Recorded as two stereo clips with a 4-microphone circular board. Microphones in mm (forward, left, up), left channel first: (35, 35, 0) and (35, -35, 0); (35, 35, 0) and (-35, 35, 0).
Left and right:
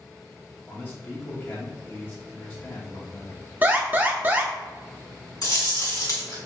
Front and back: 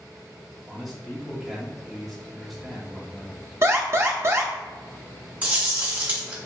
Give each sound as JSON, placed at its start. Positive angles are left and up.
{"t": 0.7, "sound": "a man speaking", "azimuth_deg": 85, "distance_m": 0.7}
{"t": 3.6, "sound": "an alarm", "azimuth_deg": -145, "distance_m": 0.5}
{"t": 5.4, "sound": "chewing", "azimuth_deg": 115, "distance_m": 1.5}